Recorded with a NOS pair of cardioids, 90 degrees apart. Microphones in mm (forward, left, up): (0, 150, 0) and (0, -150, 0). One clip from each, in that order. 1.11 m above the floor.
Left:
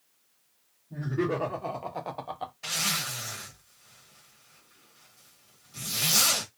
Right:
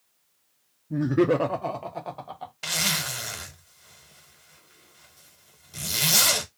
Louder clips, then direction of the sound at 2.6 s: Right 4 dB; 60° right.